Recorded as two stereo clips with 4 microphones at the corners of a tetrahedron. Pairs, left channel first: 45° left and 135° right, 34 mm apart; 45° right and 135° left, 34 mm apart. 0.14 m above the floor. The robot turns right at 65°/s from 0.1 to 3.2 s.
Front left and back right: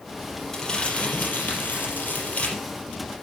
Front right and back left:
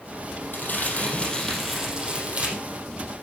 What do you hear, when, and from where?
0.5 s crumpling: 25° right, 4 m; by 2.5 s 105° left, 4 m